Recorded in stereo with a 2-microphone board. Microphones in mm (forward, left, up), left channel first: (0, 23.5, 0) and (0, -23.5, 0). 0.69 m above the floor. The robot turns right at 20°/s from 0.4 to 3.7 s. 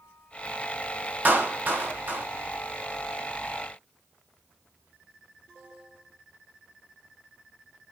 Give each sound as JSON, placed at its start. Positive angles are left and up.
{"t": 1.2, "sound": "a clap", "side_deg": -40, "distance_m": 0.7}